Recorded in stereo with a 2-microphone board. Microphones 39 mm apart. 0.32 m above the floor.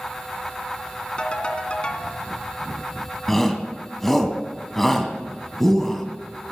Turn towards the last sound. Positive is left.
turn(degrees=5)  # may be behind; listen again after turning